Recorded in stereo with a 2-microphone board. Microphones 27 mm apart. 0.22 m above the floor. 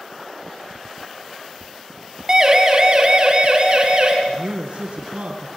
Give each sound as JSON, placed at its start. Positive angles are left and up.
{"t": 2.3, "sound": "a siren", "side_deg": -30, "distance_m": 2.5}
{"t": 4.3, "sound": "a man speaking", "side_deg": -65, "distance_m": 2.5}